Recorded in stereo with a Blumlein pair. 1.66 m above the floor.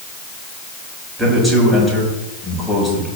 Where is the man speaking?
5° right, 6 m.